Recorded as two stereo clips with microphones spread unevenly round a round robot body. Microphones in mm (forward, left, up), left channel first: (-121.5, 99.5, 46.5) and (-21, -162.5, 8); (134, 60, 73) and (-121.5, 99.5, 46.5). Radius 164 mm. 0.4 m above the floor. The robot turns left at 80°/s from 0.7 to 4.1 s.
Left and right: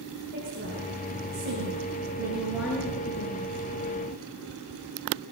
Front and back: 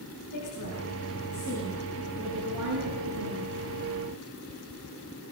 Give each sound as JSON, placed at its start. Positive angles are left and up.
{"t": 0.3, "sound": "a woman speaking", "azimuth_deg": -5, "distance_m": 7.0}